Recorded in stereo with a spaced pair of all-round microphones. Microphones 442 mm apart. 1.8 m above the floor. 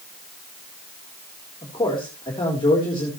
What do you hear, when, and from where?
1.6 s a man speaking: 10° left (ahead or behind), 4 m